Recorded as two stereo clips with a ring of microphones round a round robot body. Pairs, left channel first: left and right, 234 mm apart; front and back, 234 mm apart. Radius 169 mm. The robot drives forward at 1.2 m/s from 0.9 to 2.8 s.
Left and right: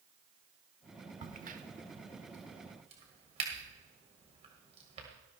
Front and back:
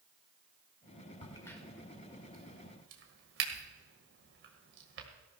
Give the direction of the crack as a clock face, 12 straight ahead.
2 o'clock.